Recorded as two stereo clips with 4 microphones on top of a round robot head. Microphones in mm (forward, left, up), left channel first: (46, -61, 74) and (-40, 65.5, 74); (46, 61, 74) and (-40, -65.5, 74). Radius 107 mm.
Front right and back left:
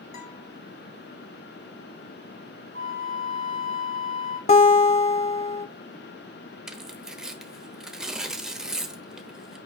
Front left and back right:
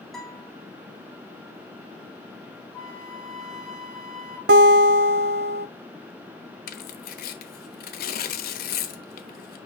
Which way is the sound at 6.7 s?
40° left.